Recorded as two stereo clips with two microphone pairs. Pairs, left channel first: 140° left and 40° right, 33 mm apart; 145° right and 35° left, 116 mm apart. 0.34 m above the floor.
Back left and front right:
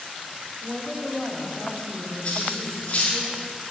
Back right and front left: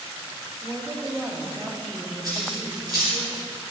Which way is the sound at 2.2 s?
90° left.